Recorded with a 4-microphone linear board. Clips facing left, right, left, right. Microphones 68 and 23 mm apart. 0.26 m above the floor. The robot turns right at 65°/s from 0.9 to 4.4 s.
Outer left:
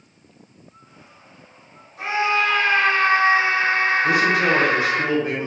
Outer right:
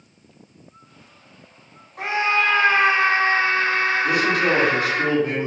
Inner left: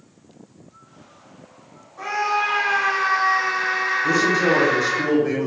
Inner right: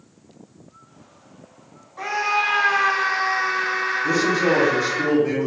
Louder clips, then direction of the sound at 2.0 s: Even, even; 80° right.